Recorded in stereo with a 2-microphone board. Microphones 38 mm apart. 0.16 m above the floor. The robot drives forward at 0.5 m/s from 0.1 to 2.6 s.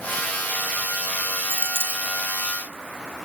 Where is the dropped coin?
60° right (ahead or behind); by 2.1 s 65° right (ahead or behind).